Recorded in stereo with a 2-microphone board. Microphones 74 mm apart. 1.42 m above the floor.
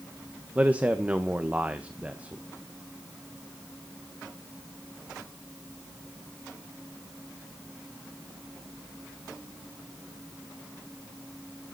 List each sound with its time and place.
0.6 s a man speaking: 20° right (ahead or behind), 1.1 m